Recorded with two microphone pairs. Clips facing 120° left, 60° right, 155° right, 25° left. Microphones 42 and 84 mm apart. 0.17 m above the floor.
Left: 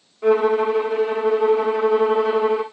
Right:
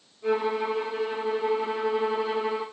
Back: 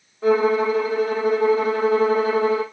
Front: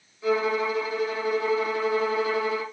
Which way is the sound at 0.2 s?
155° left.